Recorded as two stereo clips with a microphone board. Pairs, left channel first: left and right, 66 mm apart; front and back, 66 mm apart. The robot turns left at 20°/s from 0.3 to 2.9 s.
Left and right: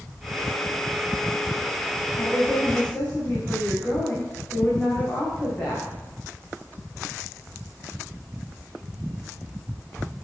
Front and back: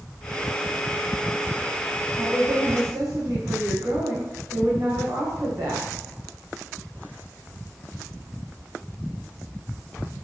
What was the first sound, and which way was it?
A woman speaking, 165° left.